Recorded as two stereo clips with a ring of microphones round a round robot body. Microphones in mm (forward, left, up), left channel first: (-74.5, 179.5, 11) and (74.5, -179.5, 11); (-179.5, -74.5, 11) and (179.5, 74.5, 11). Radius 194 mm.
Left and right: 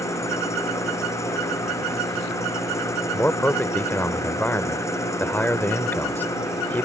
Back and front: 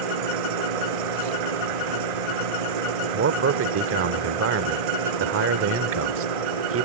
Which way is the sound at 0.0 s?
30° left.